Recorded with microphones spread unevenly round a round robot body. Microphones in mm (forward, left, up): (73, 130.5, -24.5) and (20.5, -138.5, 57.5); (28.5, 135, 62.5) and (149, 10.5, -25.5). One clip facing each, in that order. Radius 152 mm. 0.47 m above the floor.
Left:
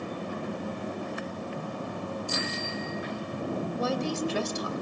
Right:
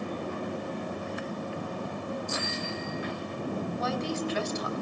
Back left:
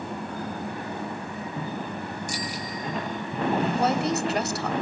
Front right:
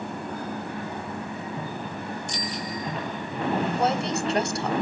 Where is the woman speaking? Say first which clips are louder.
Left 4 dB, back left 1 dB; 35° left, 2 m.